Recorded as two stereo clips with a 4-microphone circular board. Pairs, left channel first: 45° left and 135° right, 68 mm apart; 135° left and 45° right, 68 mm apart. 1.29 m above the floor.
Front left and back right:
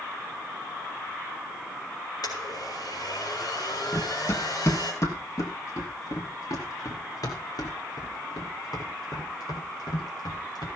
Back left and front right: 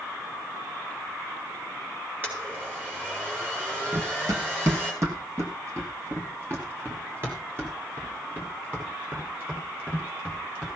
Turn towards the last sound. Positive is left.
turn(degrees=25)